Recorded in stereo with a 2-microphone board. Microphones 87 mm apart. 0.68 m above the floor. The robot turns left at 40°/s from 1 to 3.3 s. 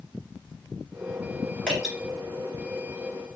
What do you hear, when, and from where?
1.7 s dripping: 15° left (ahead or behind), 1.6 m; by 1.9 s 25° left (ahead or behind), 1.6 m